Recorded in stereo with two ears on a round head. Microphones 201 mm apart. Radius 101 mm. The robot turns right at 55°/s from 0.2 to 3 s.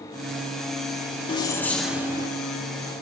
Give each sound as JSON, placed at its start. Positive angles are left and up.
{"t": 1.3, "sound": "keys jangling", "azimuth_deg": 150, "distance_m": 0.7}